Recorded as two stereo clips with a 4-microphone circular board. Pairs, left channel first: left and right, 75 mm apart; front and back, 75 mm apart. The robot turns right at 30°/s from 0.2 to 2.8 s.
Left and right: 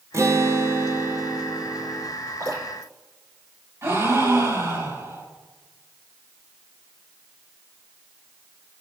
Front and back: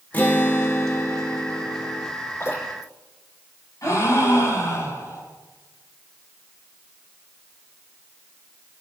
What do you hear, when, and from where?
0.1 s a guitar: 60° right, 1.1 m; by 2.1 s straight ahead, 1.1 m
2.4 s dripping: 50° right, 5.5 m; by 2.9 s 40° right, 5.5 m
3.8 s a gasp: 45° right, 4.5 m